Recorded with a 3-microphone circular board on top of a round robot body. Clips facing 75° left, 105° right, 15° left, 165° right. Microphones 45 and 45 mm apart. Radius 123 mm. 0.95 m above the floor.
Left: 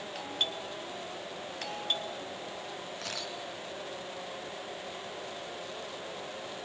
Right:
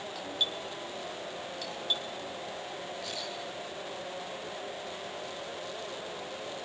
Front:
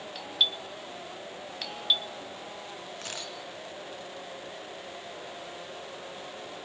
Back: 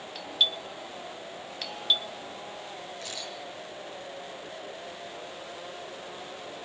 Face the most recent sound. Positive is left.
turn(degrees=60)